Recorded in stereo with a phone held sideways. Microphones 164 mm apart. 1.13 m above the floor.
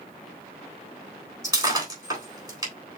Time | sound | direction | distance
1.4 | breaking glass | 20° right (ahead or behind) | 3.5 m